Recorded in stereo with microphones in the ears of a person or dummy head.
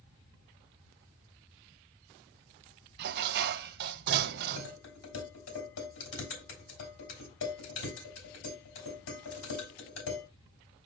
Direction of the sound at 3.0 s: 55° right (ahead or behind).